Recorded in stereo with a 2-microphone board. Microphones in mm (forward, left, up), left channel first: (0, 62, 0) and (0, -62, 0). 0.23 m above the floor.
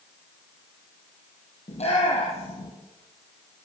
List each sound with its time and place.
1.7 s a shout: 60° left (ahead or behind), 5.5 m